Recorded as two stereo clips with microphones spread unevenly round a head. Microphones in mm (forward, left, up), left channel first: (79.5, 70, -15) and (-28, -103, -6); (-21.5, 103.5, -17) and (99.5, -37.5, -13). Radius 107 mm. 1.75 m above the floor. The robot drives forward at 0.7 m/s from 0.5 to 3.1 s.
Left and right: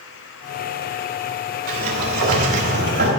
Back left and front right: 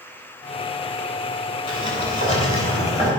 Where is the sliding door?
165° right, 2.5 m; by 3.1 s 170° right, 3.5 m.